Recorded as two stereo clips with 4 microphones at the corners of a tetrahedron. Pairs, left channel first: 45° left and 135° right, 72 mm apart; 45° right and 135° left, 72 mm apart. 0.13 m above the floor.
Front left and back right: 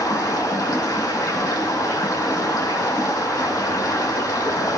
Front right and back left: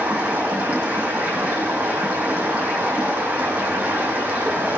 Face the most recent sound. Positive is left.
turn(degrees=65)